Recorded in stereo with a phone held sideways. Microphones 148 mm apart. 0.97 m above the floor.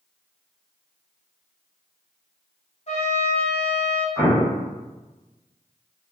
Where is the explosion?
20° left (ahead or behind), 0.8 m.